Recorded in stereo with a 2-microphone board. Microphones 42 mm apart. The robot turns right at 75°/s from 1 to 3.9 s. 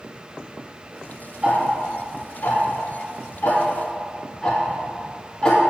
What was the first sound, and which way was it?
Ticking, 30° right (ahead or behind).